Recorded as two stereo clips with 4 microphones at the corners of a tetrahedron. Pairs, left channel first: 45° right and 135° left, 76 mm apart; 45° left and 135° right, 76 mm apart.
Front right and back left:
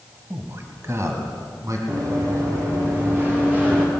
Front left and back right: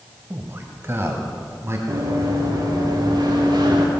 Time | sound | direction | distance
0.3 | a man speaking | straight behind | 1.4 m
1.9 | running footsteps | straight behind | 6.5 m